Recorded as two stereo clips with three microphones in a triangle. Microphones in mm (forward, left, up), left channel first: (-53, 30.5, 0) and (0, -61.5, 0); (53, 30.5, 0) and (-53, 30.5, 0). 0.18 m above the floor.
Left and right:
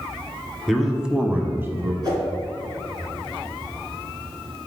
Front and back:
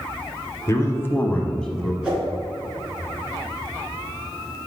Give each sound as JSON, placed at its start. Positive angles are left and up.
{"t": 0.7, "sound": "a man speaking", "azimuth_deg": 30, "distance_m": 1.1}
{"t": 2.0, "sound": "a whoosh", "azimuth_deg": -100, "distance_m": 2.5}